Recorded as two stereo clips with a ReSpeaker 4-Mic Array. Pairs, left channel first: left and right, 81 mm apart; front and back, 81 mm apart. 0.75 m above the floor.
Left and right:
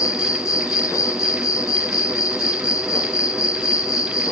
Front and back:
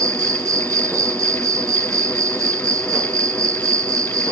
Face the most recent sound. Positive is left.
turn(degrees=135)